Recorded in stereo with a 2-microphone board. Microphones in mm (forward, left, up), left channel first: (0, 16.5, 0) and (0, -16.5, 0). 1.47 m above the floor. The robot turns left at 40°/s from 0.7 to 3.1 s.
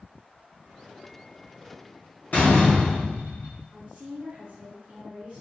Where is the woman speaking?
40° right (ahead or behind), 0.7 m.